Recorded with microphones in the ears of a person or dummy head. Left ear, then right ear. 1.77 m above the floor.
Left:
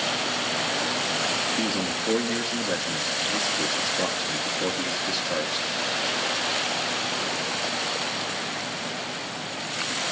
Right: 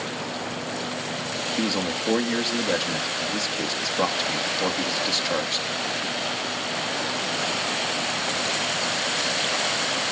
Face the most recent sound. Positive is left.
turn(degrees=-25)  # may be behind; listen again after turning